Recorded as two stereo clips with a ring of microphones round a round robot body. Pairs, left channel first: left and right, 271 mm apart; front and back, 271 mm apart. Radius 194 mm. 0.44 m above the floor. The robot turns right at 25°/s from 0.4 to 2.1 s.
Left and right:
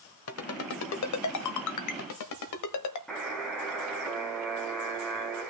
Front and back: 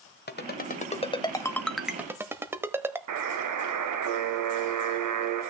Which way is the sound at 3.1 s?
Straight behind.